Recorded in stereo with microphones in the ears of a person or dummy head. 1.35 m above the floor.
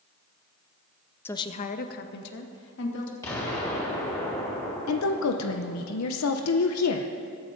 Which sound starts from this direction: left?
A woman speaking, at 4.9 s.